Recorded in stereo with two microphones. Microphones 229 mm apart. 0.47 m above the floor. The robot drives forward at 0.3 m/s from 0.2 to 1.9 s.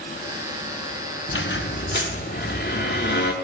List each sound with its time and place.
1.3 s a squeak: 55° left (ahead or behind), 0.7 m; by 3.3 s 45° left (ahead or behind), 0.8 m